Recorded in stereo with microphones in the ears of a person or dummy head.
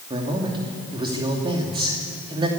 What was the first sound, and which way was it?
A man speaking, 30° right (ahead or behind).